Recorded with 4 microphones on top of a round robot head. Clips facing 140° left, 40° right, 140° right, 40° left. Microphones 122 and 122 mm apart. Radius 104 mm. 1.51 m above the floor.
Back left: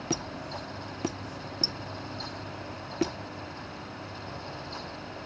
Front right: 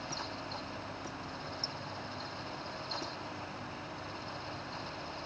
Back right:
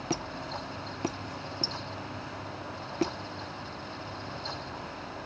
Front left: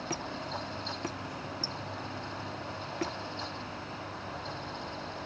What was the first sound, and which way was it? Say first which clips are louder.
A squeak: back left 7 dB, back right 4 dB; 155° left.